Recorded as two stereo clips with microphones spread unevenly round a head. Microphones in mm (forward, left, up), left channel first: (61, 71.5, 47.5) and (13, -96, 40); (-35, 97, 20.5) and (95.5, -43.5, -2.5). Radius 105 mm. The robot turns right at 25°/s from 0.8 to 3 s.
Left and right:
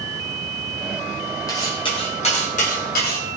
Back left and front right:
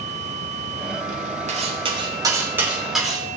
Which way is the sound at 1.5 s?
5° left.